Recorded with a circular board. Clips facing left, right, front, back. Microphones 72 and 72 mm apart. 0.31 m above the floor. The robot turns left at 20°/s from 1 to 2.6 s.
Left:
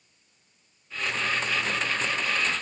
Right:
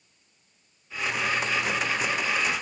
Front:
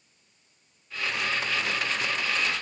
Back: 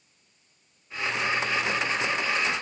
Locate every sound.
Only background noise.